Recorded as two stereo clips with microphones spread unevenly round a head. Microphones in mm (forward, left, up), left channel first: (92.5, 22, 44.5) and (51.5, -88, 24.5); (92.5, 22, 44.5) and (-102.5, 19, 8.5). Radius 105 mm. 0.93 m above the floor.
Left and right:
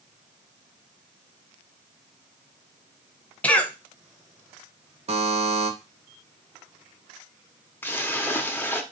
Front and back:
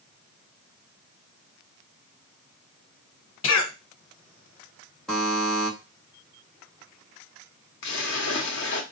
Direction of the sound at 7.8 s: 5° left.